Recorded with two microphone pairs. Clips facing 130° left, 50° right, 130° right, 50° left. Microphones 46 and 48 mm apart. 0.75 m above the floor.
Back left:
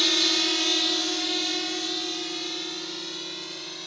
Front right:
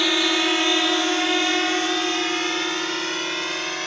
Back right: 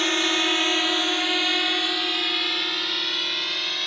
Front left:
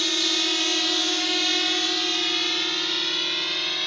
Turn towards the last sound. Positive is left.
turn(degrees=-40)